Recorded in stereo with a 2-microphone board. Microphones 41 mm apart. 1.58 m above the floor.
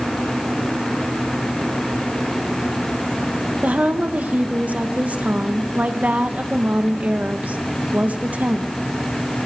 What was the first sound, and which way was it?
A woman speaking, 35° right (ahead or behind).